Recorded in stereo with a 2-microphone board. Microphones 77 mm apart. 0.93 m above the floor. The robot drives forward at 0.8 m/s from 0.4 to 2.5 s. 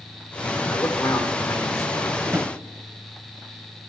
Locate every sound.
0.7 s a man speaking: 55° left (ahead or behind), 2 m; by 2.1 s 35° left (ahead or behind), 3 m
2.2 s a drawer: 55° right (ahead or behind), 1.1 m; by 2.5 s 50° right (ahead or behind), 1.1 m